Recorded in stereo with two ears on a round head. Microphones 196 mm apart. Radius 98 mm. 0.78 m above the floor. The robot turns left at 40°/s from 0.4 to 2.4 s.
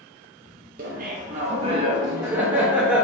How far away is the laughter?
About 0.6 m.